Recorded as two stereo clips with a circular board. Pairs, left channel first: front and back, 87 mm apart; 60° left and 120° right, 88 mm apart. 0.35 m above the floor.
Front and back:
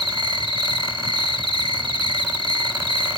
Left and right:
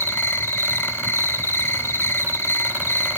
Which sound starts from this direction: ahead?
An insect, at 0.0 s.